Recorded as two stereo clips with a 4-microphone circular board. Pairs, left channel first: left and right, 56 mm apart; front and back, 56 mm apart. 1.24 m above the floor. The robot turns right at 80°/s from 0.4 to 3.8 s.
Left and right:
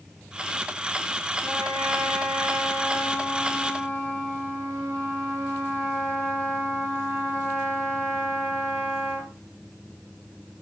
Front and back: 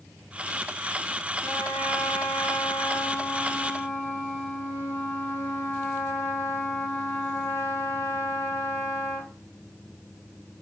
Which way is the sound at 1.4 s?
115° left.